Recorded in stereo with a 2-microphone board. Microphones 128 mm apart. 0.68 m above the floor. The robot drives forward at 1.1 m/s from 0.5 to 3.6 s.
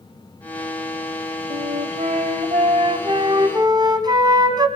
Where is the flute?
75° right (ahead or behind), 1.4 m; by 4.7 s 35° right (ahead or behind), 2.5 m.